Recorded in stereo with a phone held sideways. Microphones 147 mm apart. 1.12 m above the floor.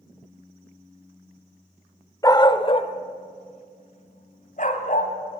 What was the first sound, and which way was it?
A dog barking, 25° left (ahead or behind).